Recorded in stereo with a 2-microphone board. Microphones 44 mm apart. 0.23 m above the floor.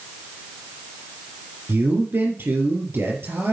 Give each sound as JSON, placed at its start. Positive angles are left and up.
{"t": 1.7, "sound": "a man speaking", "side_deg": -60, "distance_m": 4.0}